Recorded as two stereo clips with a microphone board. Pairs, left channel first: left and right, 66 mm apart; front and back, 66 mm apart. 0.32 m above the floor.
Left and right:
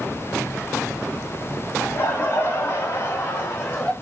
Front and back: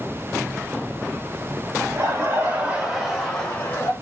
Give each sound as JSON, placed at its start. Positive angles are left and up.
{"t": 1.8, "sound": "laughter", "azimuth_deg": 140, "distance_m": 1.6}